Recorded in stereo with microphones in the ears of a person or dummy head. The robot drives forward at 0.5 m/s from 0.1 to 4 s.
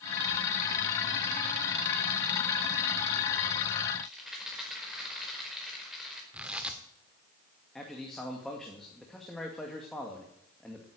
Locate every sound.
4.0 s a rattle: centre (ahead or behind), 4.5 m
6.3 s tearing paper: 5° right (ahead or behind), 1.6 m
7.8 s a man speaking: 5° left (ahead or behind), 2 m